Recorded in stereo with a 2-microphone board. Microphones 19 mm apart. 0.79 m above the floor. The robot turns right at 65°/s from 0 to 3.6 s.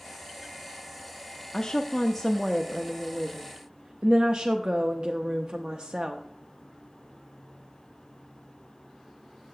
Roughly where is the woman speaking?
Behind left.